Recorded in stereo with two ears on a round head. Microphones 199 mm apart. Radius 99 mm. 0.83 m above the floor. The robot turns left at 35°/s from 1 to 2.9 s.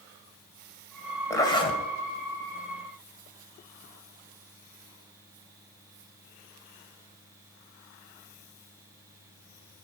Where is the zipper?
15° left (ahead or behind), 2 m; by 1.8 s 30° left (ahead or behind), 2 m.